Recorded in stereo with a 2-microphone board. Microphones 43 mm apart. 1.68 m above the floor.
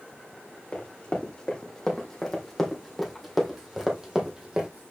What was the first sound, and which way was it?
Running footsteps, 25° left (ahead or behind).